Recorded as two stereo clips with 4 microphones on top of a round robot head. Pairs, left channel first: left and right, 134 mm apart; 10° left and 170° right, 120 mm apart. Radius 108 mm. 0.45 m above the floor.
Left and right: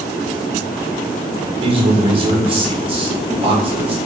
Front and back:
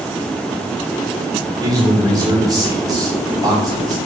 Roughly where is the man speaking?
Behind right.